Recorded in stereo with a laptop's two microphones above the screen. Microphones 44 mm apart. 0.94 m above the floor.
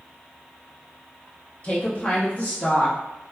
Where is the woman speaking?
30° left (ahead or behind), 0.9 m; by 3.0 s 45° left (ahead or behind), 1.5 m.